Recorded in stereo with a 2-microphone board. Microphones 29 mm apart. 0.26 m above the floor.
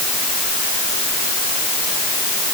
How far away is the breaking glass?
No breaking glass in this recording.